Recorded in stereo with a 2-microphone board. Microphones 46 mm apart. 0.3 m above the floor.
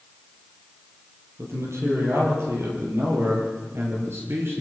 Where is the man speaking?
75° right (ahead or behind), 9 m; by 4.6 s 60° right (ahead or behind), 6.5 m.